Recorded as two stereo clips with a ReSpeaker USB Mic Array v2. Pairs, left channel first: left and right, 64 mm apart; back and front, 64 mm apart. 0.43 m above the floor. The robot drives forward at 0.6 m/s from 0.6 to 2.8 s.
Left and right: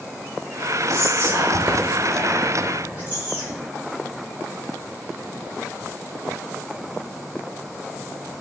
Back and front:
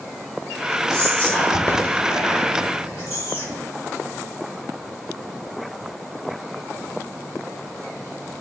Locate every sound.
0.9 s whispering: 115° right, 1.2 m; by 3.6 s 150° right, 1.9 m